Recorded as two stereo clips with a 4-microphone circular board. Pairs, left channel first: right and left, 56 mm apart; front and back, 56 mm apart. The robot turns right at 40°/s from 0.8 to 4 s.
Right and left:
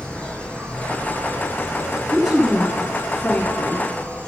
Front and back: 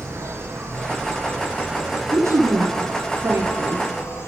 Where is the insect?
160° right, 5 m; by 4.3 s 30° right, 5 m.